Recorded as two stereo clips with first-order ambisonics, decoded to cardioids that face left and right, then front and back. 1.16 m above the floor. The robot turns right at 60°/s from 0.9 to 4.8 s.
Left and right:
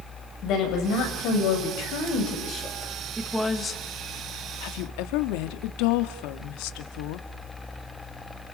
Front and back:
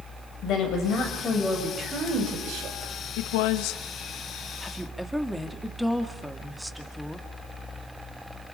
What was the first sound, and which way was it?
A woman speaking, 45° left.